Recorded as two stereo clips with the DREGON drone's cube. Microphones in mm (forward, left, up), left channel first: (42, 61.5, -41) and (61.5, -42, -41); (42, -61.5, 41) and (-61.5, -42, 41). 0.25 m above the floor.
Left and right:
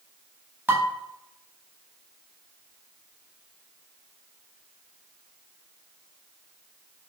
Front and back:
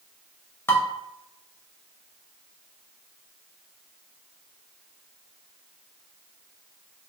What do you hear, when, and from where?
0.7 s dishes clattering: 40° right, 0.7 m